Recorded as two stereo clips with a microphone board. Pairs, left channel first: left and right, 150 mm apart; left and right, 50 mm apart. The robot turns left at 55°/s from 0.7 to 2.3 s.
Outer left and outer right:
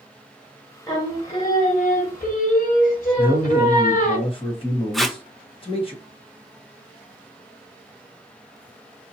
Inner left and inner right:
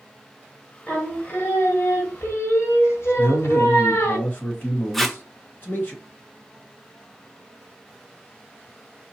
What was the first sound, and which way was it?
Singing, 155° left.